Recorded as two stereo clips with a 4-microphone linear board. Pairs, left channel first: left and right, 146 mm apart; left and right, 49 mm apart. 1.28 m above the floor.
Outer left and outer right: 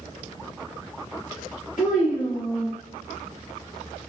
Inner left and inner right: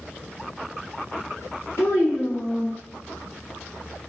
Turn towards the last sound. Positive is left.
turn(degrees=65)  # may be behind; listen again after turning